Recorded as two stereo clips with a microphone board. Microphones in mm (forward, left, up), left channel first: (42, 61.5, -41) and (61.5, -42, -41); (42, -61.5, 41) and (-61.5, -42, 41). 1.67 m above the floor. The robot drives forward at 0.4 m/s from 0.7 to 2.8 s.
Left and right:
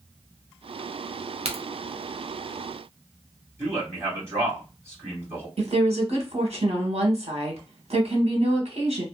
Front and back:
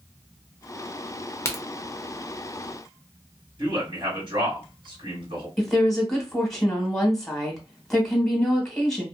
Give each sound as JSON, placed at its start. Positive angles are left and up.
{"t": 1.4, "sound": "a crack", "azimuth_deg": -75, "distance_m": 0.7}
{"t": 3.6, "sound": "a man speaking", "azimuth_deg": -145, "distance_m": 2.0}
{"t": 5.6, "sound": "a woman speaking", "azimuth_deg": -95, "distance_m": 1.3}